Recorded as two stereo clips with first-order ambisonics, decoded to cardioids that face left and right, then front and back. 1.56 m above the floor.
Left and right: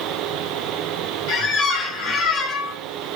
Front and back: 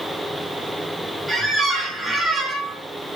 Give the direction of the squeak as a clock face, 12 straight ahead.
9 o'clock.